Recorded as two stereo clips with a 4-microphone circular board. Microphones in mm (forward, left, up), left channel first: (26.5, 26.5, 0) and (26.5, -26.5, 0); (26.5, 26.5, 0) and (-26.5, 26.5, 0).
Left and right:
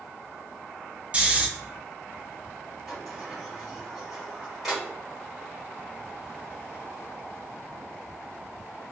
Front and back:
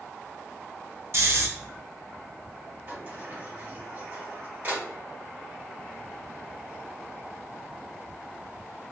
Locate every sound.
1.1 s snoring: 155° right, 0.6 m
2.9 s a sliding door: 175° right, 1.6 m